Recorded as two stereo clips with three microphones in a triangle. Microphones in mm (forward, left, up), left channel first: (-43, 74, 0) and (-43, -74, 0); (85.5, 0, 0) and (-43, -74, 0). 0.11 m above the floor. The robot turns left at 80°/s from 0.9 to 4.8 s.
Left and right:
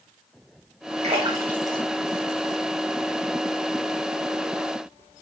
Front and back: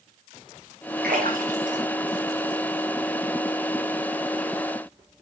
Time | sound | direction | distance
1.0 | a splash | 130° right | 3.5 m